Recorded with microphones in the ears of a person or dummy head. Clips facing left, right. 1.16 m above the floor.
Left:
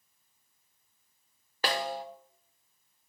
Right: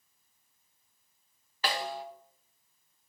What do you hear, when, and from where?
1.6 s a snare drum: 40° left (ahead or behind), 1.1 m